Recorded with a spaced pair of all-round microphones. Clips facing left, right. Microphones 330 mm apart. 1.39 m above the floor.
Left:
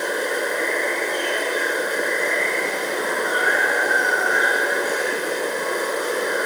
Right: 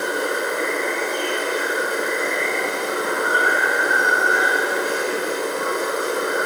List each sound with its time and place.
0.0 s running water: 15° right (ahead or behind), 2.5 m